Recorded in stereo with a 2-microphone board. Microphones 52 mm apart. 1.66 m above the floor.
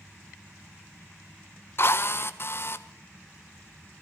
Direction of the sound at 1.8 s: 45° left (ahead or behind).